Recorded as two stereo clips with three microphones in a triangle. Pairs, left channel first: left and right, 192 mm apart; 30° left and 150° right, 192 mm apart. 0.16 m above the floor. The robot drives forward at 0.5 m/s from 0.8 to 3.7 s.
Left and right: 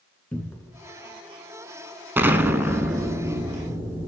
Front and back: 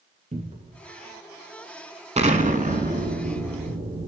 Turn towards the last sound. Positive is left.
turn(degrees=-175)